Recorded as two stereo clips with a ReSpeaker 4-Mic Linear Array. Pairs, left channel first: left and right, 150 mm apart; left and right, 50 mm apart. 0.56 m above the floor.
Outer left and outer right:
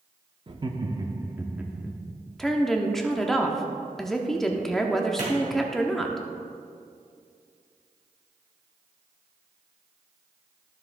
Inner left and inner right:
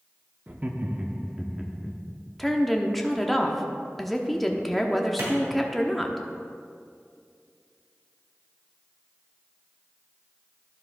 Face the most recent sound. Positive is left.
turn(degrees=-60)  # may be behind; listen again after turning